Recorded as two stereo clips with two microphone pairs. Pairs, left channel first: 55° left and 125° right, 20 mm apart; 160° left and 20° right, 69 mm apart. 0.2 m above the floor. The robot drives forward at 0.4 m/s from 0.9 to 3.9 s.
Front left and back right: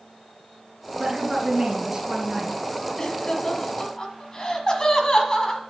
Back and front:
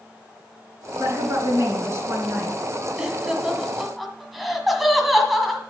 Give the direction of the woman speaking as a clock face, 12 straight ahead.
2 o'clock.